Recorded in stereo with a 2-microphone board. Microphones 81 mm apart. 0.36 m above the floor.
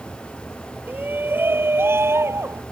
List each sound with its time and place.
0.9 s a shout: 20° right (ahead or behind); by 2.6 s 35° right (ahead or behind)